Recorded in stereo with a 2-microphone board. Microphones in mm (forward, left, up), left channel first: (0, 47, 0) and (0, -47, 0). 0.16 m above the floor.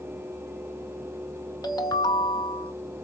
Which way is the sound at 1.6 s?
45° left (ahead or behind).